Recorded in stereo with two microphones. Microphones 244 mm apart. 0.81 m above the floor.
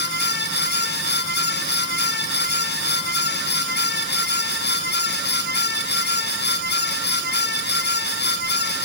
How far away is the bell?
I don't hear a bell.